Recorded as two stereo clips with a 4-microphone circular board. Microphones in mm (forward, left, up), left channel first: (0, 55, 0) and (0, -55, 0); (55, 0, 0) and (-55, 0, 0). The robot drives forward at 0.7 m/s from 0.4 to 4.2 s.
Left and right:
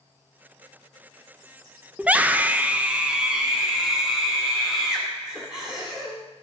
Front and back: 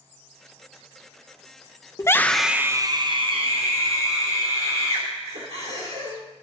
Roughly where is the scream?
Ahead right.